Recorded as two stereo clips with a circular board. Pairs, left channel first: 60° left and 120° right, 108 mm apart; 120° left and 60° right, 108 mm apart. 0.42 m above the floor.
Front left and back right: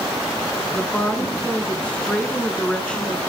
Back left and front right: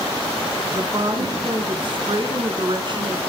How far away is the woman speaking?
About 3.5 m.